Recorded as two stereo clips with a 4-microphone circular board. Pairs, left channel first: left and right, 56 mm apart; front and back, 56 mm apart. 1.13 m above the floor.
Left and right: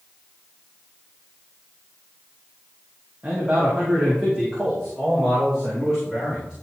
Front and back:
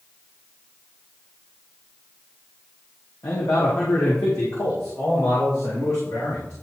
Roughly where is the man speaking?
Ahead right.